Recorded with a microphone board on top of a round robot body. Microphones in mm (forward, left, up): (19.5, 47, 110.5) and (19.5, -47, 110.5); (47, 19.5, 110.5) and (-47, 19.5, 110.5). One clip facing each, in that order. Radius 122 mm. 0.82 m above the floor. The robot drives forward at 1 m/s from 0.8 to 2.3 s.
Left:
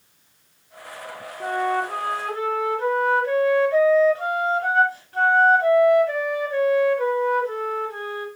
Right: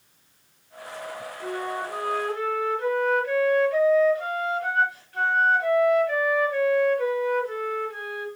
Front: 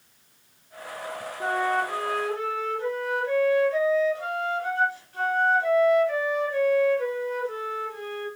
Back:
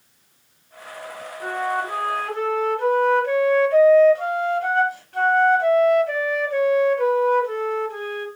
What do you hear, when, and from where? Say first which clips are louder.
1.4 s a flute: left 8 dB, even; 60° left, 0.7 m; by 8.3 s 150° left, 0.9 m